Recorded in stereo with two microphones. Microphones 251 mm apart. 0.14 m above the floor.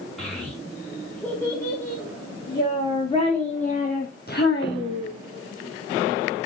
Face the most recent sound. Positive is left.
turn(degrees=50)  # may be behind; listen again after turning